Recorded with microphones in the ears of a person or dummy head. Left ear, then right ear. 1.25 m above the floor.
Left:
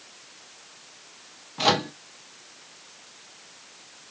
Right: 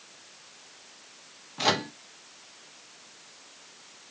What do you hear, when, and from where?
1.6 s a microwave: centre (ahead or behind), 0.6 m